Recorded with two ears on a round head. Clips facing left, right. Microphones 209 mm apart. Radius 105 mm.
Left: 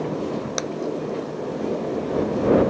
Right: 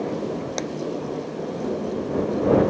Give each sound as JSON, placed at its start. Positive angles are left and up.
{"t": 0.6, "sound": "a clap", "side_deg": 10}